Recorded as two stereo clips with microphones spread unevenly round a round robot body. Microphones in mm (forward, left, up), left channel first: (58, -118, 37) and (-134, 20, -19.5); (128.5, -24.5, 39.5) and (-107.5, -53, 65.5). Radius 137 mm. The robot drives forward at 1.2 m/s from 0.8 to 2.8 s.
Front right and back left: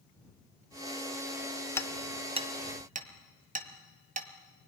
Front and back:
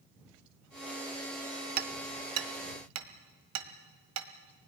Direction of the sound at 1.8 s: 125° right.